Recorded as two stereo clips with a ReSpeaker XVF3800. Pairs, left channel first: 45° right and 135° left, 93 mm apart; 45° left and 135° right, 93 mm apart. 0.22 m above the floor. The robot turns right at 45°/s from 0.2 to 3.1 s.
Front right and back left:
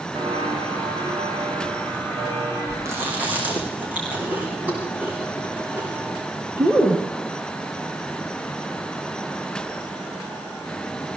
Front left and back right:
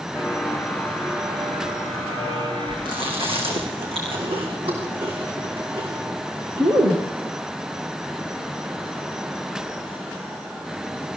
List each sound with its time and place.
0.1 s footsteps: 105° left, 7 m; by 2.8 s 160° right, 8.5 m
2.9 s chewing: 165° right, 7 m; by 7.0 s 155° right, 7 m